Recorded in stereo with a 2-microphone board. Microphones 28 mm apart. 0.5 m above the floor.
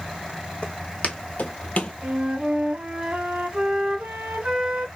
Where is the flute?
35° right (ahead or behind), 1.6 m.